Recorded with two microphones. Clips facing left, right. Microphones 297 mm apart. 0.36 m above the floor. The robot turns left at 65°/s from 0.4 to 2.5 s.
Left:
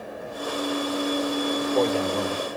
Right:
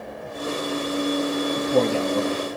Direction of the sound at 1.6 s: 65° right.